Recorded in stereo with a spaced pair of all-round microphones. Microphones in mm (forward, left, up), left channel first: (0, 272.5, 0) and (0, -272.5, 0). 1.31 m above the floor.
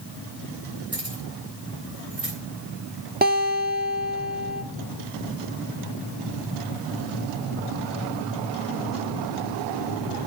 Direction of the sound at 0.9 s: 85° right.